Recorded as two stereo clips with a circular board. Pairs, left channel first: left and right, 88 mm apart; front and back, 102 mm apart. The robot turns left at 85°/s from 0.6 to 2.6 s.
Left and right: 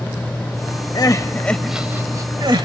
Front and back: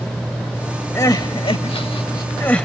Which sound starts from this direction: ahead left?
Crying, at 0.9 s.